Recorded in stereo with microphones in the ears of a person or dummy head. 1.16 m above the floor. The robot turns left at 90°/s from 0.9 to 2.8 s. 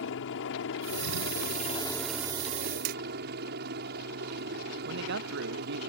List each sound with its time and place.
0.0 s a helicopter: 110° left; by 5.9 s 60° right
2.9 s hammering: 45° right (ahead or behind)
4.8 s a man speaking: 60° right (ahead or behind)